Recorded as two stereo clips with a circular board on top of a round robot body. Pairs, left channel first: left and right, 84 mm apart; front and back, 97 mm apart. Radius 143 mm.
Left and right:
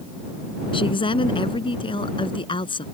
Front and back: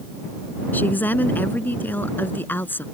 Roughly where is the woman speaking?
Left.